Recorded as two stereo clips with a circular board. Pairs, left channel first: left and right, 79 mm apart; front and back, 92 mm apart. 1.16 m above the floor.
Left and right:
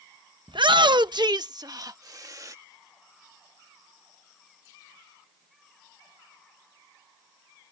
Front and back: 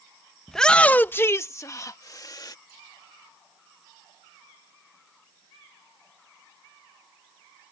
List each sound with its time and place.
0.5 s a shout: 90° right; by 2.5 s 45° right